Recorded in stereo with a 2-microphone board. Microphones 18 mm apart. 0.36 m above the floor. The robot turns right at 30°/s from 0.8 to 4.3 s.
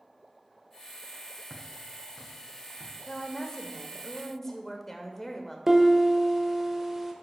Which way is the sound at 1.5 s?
30° right (ahead or behind).